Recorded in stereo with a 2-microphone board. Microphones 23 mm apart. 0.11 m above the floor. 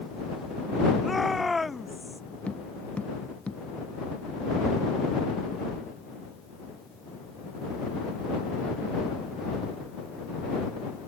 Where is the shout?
Centre (ahead or behind); by 2.2 s 5° right (ahead or behind).